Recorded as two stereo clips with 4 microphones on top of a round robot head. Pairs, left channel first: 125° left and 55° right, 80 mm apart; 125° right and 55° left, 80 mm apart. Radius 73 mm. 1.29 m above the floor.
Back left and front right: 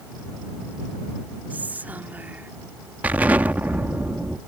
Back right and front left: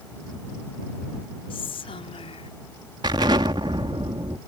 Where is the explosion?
20° left.